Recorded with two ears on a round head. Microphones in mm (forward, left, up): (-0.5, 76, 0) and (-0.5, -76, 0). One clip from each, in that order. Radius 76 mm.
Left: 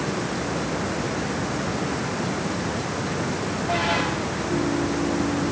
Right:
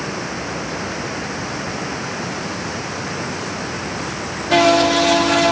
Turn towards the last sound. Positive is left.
turn(degrees=-90)